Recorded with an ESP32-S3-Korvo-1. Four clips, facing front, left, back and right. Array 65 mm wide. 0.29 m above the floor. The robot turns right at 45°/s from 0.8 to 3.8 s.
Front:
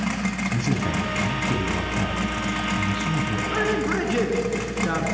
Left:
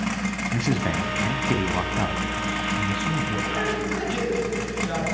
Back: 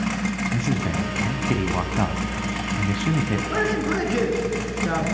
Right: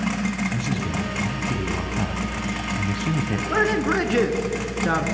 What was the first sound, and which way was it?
A man speaking, 95° left.